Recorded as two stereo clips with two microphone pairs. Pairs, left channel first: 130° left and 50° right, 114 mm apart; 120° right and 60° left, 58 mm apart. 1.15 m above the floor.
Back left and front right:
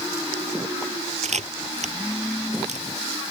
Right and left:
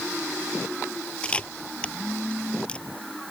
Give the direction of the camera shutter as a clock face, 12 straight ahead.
2 o'clock.